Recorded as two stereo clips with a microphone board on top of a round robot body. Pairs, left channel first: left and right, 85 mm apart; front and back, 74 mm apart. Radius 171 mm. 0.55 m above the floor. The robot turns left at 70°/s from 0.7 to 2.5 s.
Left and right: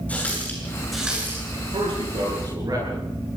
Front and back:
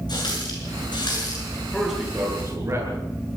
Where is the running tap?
15° left, 7 m; by 1.6 s 50° right, 7 m.